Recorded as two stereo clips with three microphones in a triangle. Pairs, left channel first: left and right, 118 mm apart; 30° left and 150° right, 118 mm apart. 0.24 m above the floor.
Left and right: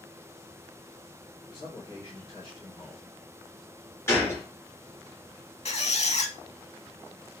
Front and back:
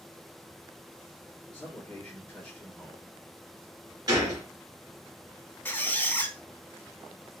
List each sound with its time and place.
1.5 s a man speaking: 95° left, 1.6 m
4.1 s a gunshot: 155° left, 1.6 m
5.7 s a squeak: 100° left, 0.5 m